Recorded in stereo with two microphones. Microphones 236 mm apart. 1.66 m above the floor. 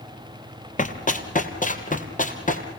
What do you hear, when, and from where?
0.8 s running footsteps: 35° left (ahead or behind), 2.5 m